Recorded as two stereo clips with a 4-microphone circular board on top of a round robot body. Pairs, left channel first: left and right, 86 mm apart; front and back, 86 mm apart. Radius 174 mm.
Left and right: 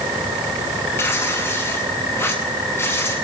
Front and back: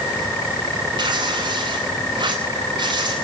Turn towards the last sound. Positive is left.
turn(degrees=155)